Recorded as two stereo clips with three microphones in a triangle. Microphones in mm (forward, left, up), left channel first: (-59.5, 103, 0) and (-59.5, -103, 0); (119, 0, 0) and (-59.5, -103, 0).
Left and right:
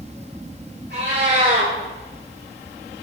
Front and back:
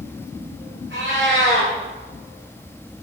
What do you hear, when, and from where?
0.9 s a cat meowing: 125° right, 9 m